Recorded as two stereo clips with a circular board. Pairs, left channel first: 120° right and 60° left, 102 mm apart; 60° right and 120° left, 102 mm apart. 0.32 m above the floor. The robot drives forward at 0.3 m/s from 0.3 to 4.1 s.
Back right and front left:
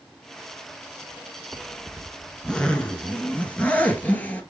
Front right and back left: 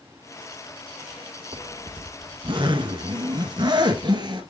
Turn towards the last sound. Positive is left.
turn(degrees=165)